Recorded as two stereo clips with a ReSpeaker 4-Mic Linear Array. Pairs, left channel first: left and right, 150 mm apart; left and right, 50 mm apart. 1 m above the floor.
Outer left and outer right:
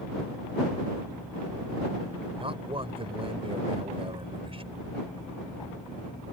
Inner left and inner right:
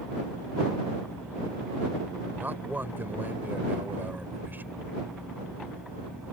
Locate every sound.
2.4 s a man speaking: 40° right (ahead or behind)